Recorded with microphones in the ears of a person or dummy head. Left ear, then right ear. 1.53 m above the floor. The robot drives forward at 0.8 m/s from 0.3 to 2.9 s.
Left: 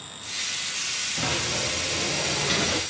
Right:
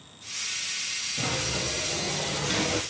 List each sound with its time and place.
1.2 s a sliding door: 80° left, 3.5 m; by 2.8 s 65° left (ahead or behind), 4 m